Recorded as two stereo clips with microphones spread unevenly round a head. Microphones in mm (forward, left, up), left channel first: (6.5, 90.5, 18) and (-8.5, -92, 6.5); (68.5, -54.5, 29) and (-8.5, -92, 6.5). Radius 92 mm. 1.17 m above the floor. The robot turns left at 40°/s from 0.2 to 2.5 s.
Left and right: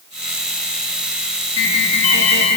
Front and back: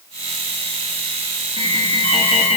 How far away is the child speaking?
No child speaking in this recording.